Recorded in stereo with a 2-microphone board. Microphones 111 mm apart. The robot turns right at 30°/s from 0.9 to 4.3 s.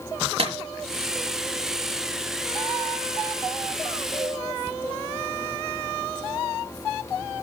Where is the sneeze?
I don't hear a sneeze.